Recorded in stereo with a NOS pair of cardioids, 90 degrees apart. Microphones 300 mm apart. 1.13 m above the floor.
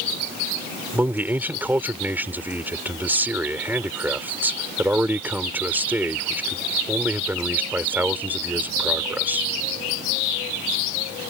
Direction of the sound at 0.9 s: 5° right.